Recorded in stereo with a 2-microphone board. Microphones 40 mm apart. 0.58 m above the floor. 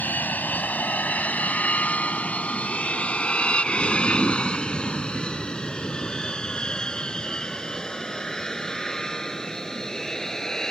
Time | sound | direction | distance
0.0 | an aircraft | 45° left (ahead or behind) | ?